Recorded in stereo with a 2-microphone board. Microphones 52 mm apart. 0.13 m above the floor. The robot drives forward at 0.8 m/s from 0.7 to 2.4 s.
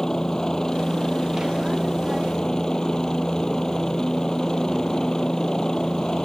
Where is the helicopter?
10° left (ahead or behind).